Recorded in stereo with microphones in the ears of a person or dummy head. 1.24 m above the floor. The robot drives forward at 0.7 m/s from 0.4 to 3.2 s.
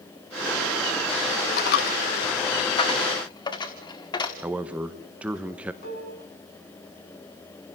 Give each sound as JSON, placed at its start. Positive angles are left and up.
{"t": 1.6, "sound": "a dropped coin", "side_deg": 50, "distance_m": 0.7}
{"t": 4.4, "sound": "a man speaking", "side_deg": -5, "distance_m": 0.9}
{"t": 5.8, "sound": "dishes clattering", "side_deg": 55, "distance_m": 7.5}